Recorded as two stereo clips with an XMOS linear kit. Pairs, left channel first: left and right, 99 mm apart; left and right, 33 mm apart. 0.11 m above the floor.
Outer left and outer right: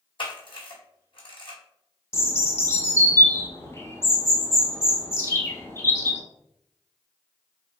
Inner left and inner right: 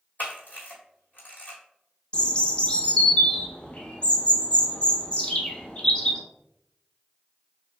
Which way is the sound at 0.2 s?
60° left (ahead or behind).